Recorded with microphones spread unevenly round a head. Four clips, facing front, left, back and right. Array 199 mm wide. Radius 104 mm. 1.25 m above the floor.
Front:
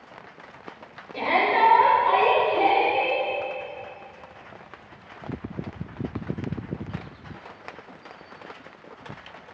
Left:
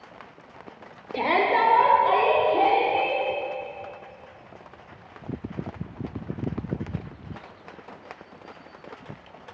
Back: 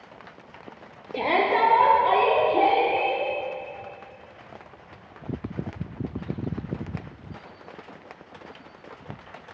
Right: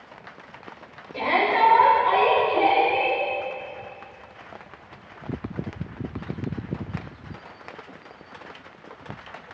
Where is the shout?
140° left, 1.0 m; by 3.2 s 145° left, 4 m.